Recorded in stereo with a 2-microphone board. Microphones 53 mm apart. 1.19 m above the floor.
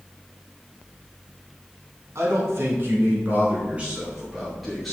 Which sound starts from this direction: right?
A man speaking, at 2.1 s.